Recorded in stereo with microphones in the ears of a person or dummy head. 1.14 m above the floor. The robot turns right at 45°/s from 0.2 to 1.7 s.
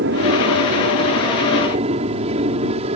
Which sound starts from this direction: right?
An aircraft, at 0.0 s.